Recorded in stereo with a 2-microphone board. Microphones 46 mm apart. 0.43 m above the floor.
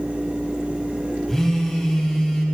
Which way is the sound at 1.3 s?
10° left (ahead or behind).